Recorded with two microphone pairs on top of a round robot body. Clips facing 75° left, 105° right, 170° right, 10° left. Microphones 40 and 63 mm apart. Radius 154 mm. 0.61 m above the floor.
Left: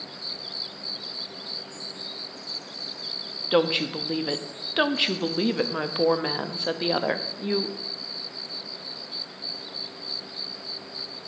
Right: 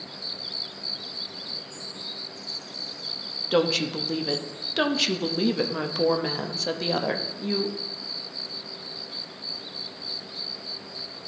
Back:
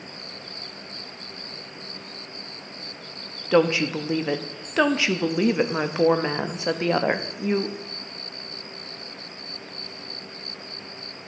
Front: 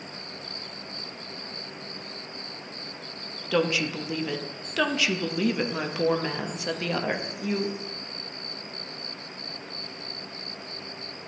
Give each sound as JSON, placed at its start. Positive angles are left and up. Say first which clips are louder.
{"t": 3.5, "sound": "a woman speaking", "louder": "left 1 dB, back 6 dB", "azimuth_deg": 140, "distance_m": 0.8}